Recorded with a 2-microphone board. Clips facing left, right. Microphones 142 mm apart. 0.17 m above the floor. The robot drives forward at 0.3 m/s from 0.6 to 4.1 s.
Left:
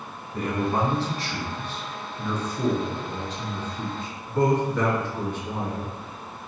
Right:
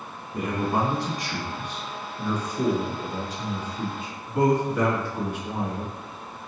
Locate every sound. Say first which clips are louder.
0.3 s a man speaking: even; 15° right (ahead or behind), 1.0 m; by 6.5 s 10° right (ahead or behind), 1.6 m